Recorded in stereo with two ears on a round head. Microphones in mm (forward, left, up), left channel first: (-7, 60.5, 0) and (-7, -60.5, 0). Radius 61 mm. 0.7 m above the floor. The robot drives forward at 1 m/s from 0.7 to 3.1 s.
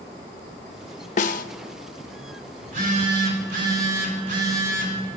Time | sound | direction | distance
1.2 | a snare drum | 55° left (ahead or behind) | 0.6 m
2.6 | a phone buzzing | 60° right (ahead or behind) | 2.5 m